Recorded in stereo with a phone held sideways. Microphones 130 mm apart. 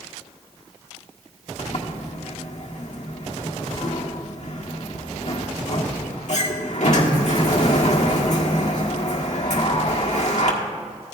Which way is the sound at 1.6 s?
65° left (ahead or behind).